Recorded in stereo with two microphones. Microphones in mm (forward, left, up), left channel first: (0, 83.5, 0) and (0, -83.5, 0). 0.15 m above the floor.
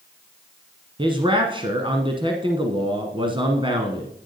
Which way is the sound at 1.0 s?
30° right (ahead or behind).